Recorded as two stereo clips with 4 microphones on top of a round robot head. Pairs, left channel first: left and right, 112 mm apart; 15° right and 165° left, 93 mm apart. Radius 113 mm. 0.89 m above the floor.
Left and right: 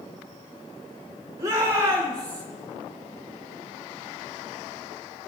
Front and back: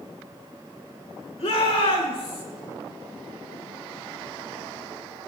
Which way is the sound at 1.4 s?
25° right.